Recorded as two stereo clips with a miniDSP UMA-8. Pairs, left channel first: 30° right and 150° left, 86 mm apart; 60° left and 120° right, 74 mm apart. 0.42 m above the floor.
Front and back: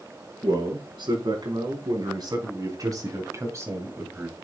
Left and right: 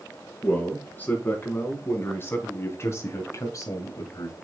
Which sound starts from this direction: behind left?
A man speaking, at 0.4 s.